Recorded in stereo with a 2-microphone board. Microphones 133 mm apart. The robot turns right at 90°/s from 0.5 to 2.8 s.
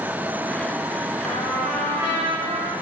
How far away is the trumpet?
About 9 m.